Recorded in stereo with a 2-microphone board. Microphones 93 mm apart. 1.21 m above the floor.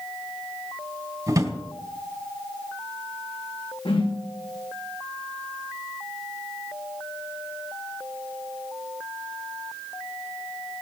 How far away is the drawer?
About 2.5 m.